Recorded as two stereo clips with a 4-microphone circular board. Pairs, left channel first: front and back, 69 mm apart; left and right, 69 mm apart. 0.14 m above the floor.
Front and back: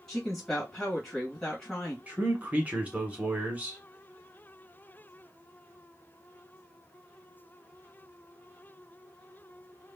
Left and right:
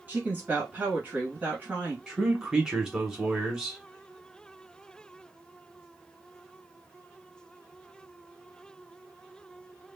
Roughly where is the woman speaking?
Right.